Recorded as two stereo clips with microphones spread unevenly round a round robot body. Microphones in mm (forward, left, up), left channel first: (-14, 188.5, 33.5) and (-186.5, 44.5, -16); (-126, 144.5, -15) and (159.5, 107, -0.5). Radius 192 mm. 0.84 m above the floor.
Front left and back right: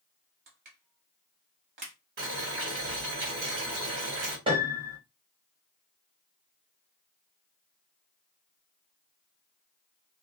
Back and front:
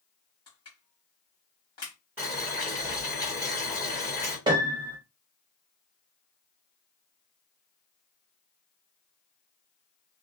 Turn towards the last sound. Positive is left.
turn(degrees=-65)